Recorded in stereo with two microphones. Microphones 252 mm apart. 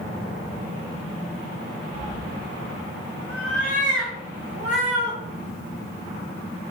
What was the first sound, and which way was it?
A cat meowing, 25° right (ahead or behind).